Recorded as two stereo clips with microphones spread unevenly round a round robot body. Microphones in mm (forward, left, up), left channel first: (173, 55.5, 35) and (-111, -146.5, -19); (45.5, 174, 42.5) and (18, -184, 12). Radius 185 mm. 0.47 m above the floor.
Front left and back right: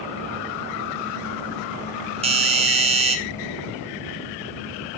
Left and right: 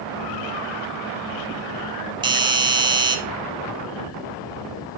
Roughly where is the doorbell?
Behind right.